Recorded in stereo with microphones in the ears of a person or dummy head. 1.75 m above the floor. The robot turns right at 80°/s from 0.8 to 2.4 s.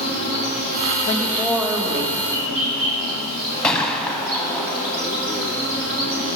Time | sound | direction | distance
0.0 | an insect | 145° left | 1.5 m
1.1 | a woman speaking | 140° left | 1.1 m
3.6 | a gunshot | 5° left (ahead or behind) | 0.7 m